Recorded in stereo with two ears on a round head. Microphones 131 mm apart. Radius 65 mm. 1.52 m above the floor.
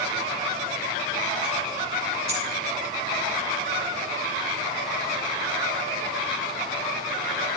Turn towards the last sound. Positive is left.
turn(degrees=-45)  # may be behind; listen again after turning